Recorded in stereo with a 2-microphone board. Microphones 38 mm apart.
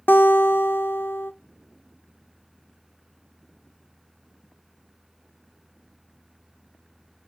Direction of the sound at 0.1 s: 70° left (ahead or behind).